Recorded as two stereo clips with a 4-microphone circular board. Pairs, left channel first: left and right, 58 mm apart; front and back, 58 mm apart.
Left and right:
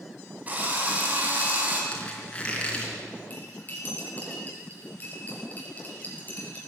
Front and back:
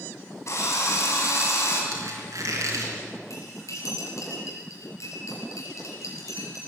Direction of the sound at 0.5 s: 30° right.